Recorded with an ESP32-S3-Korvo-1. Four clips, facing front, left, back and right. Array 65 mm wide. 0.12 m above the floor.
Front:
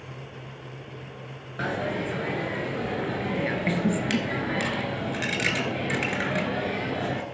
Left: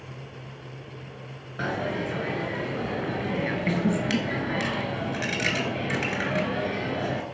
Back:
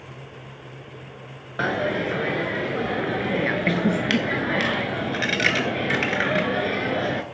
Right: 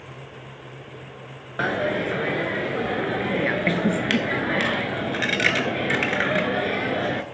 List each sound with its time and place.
1.6 s a dropped coin: 130° right, 0.7 m